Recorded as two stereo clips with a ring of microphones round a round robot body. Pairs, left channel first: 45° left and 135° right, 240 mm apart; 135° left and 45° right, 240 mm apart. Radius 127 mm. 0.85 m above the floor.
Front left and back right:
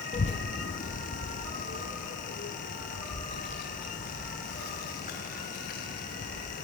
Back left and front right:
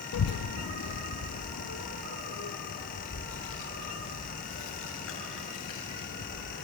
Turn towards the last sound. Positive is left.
turn(degrees=100)